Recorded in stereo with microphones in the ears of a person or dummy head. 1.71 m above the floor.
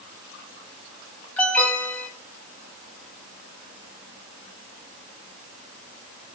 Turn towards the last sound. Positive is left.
turn(degrees=5)  # may be behind; listen again after turning